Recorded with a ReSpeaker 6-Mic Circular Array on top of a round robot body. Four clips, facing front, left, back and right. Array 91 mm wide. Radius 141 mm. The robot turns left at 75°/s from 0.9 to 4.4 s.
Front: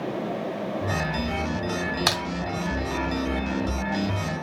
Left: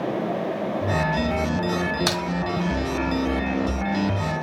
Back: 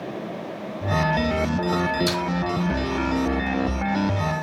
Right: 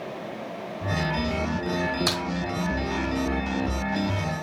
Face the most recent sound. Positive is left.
turn(degrees=-155)